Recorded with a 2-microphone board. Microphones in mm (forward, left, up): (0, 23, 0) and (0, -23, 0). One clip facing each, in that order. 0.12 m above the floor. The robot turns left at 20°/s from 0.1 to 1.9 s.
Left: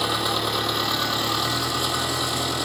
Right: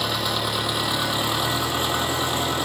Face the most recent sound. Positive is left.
turn(degrees=-30)